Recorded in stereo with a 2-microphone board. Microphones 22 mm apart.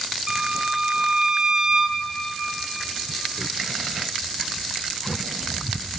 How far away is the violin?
About 1.0 m.